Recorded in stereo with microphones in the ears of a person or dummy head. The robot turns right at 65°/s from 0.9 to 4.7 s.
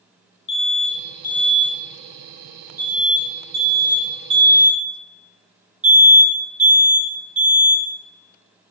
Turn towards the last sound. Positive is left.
turn(degrees=-5)  # may be behind; listen again after turning